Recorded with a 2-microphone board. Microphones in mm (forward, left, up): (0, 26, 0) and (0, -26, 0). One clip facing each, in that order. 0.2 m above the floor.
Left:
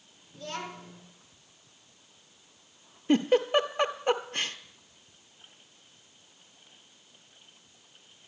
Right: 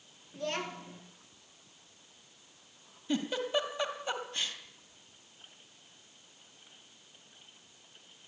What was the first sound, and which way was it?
A child speaking, 35° right (ahead or behind).